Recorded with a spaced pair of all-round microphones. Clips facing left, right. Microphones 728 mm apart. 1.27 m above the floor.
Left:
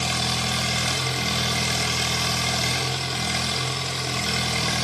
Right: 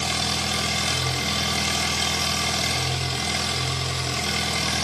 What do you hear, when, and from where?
0.0 s an engine running: centre (ahead or behind), 1.4 m